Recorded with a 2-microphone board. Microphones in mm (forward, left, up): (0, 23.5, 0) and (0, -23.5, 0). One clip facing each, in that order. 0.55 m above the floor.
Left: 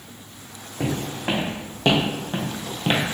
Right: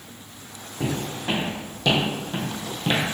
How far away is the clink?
No clink in this recording.